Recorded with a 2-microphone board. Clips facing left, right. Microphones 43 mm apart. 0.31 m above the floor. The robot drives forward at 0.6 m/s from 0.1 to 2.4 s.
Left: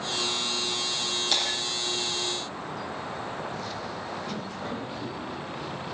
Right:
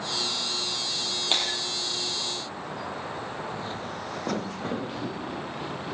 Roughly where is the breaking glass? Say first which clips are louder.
Right 2 dB; right.